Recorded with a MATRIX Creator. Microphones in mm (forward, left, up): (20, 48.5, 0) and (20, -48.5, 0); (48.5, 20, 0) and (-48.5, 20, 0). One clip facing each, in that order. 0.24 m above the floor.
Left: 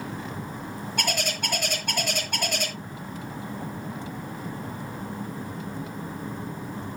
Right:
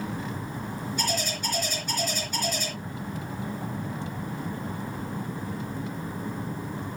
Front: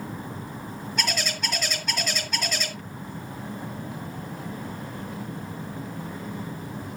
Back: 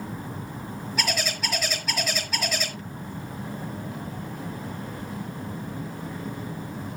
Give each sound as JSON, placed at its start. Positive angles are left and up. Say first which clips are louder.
{"t": 1.0, "sound": "a bird", "louder": "left 2 dB, back 1 dB", "azimuth_deg": 95, "distance_m": 3.5}